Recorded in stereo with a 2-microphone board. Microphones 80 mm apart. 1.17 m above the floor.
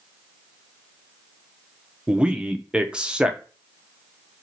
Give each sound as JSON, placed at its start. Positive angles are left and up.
{"t": 2.1, "sound": "a man speaking", "side_deg": -10, "distance_m": 0.6}